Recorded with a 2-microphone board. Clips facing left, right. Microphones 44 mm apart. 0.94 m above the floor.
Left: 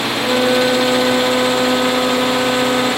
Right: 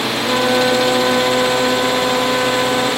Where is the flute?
50° left (ahead or behind), 1.9 m.